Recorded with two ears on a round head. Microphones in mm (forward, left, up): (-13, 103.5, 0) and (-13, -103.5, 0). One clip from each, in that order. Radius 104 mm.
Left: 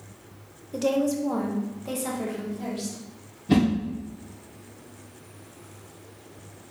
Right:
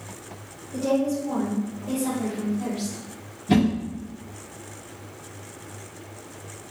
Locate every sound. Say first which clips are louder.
0.7 s a woman speaking: even; 75° left (ahead or behind), 0.9 m; by 3.0 s 15° left (ahead or behind), 1.6 m
3.5 s a whoosh: right 1 dB; centre (ahead or behind), 1.2 m